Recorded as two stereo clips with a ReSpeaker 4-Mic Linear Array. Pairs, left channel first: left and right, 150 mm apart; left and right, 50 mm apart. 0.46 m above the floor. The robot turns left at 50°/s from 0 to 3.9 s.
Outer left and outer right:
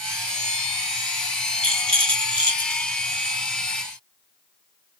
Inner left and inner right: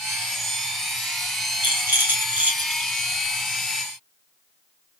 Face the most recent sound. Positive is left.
turn(degrees=165)